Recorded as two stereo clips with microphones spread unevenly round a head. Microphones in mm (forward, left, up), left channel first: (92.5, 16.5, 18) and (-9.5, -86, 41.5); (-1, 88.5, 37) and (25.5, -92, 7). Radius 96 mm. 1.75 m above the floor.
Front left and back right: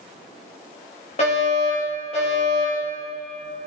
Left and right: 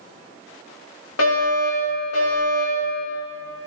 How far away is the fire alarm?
About 5.5 m.